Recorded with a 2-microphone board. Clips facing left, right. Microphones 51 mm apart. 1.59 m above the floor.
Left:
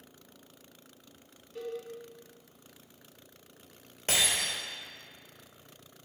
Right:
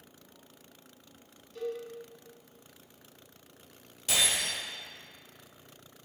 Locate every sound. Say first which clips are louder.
1.6 s a cowbell: right 2 dB; 20° left (ahead or behind), 3 m
4.1 s breaking glass: even; 50° left (ahead or behind), 2.5 m